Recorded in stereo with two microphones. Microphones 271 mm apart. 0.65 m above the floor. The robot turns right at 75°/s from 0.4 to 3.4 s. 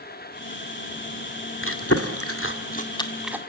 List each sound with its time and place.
1.6 s chewing: 50° left (ahead or behind), 1.9 m; by 3.4 s 10° right (ahead or behind), 1.9 m